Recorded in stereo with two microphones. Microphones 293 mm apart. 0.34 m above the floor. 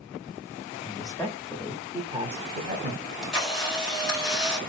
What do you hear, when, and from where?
0.8 s a man speaking: 15° left (ahead or behind), 1.1 m; by 2.9 s 35° right (ahead or behind), 1.1 m
3.0 s a camera shutter: centre (ahead or behind), 3 m